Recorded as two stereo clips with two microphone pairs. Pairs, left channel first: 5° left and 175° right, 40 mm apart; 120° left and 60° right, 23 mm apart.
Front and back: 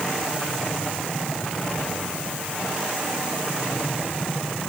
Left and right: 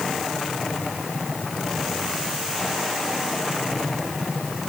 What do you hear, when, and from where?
Only background noise.